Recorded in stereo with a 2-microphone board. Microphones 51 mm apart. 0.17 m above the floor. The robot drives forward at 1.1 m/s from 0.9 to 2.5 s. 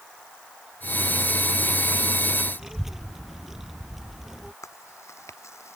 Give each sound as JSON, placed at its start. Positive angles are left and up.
{"t": 2.6, "sound": "a child speaking", "side_deg": -5}
{"t": 4.6, "sound": "chewing", "side_deg": 70}